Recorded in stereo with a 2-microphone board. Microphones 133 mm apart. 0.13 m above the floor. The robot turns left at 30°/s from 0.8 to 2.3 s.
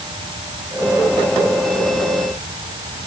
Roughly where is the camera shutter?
I don't hear a camera shutter.